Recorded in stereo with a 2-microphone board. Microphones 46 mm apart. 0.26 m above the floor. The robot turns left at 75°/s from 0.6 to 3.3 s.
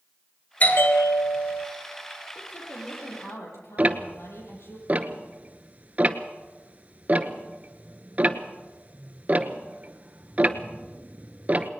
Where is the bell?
150° left, 3 m; by 1.7 s 70° left, 3 m.